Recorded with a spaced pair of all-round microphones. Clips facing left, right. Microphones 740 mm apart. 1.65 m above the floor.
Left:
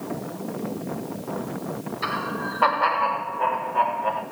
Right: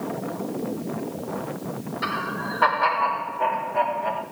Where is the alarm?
I don't hear an alarm.